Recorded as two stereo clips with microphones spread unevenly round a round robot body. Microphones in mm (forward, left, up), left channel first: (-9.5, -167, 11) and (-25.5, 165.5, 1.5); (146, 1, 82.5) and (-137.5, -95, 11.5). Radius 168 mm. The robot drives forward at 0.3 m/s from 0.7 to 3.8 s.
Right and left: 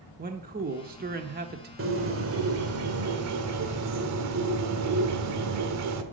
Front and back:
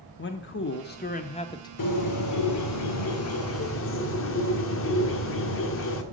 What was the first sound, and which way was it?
A man speaking, 60° left.